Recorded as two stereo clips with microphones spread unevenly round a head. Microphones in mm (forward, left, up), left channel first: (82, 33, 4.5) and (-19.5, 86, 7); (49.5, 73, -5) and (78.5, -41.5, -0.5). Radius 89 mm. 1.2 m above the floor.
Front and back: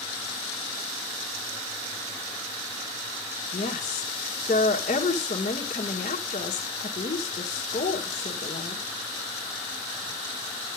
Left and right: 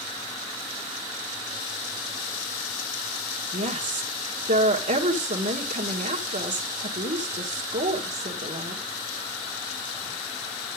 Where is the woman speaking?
65° right, 1.6 m.